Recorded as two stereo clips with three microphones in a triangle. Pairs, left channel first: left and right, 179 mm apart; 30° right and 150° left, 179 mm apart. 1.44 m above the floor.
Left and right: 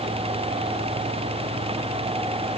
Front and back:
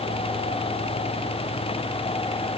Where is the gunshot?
No gunshot in this recording.